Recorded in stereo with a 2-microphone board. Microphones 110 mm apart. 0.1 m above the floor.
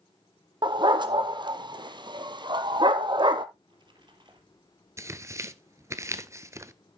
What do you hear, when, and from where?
0.6 s a dog barking: 45° right (ahead or behind), 0.9 m
3.5 s a splash: 45° right (ahead or behind), 2.5 m
5.0 s tearing paper: 30° right (ahead or behind), 0.7 m